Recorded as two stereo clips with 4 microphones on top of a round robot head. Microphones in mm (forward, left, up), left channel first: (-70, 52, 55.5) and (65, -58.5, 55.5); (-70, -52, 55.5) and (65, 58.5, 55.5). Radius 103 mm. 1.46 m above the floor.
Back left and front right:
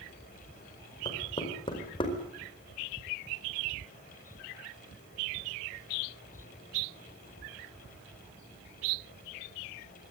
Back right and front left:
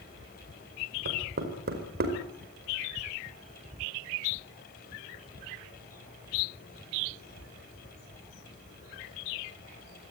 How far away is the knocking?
About 4.5 m.